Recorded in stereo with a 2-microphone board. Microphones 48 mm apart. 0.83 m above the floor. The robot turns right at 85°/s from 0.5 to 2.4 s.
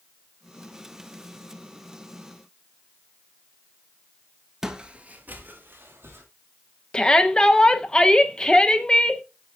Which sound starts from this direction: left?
A shout, at 6.9 s.